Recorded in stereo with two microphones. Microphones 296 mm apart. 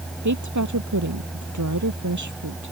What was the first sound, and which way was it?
A woman speaking, 70° right (ahead or behind).